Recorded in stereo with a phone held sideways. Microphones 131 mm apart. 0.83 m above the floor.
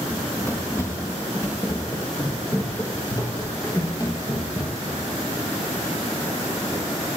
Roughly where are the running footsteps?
Centre.